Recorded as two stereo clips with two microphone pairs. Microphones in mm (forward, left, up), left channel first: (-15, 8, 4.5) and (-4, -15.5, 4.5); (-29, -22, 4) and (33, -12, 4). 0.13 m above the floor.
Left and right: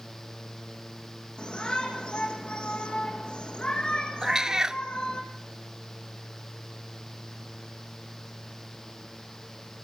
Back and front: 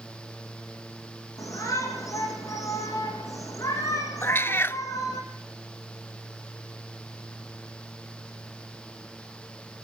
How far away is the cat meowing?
About 0.5 m.